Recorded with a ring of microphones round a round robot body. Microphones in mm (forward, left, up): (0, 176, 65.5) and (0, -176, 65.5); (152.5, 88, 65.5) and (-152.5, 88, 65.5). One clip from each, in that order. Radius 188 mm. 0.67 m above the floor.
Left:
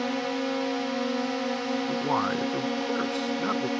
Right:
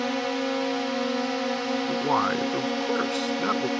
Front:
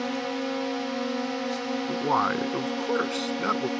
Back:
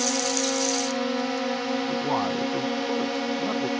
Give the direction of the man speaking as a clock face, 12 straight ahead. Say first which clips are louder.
Right 3 dB, front 5 dB; 1 o'clock.